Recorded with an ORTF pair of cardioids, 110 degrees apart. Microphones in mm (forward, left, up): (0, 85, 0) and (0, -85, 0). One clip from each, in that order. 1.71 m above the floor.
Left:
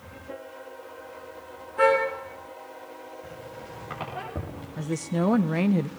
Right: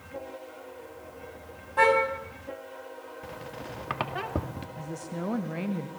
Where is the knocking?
I don't hear knocking.